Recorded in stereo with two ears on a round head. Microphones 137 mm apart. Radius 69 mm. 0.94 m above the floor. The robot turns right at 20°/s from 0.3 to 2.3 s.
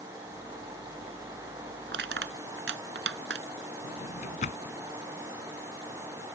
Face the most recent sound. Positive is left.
turn(degrees=50)  # may be behind; listen again after turning